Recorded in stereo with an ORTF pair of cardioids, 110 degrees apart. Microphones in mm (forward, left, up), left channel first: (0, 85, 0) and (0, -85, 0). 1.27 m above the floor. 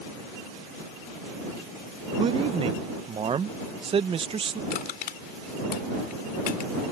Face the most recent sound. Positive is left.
turn(degrees=60)